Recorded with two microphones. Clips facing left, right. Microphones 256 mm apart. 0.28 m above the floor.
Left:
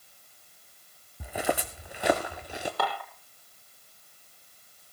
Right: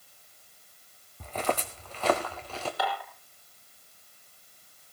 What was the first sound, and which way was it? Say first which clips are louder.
Footsteps: left 1 dB; 10° left (ahead or behind).